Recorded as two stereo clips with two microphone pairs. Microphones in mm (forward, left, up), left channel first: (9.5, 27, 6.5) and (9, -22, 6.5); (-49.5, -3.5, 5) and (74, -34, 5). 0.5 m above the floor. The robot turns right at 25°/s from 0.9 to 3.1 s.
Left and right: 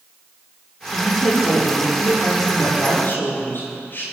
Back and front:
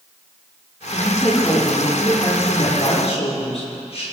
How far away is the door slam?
I don't hear a door slam.